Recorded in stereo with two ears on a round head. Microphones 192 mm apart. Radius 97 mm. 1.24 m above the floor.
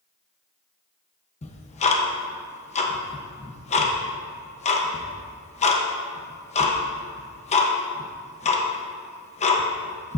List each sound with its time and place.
1.4 s ticking: 35° left (ahead or behind), 1.0 m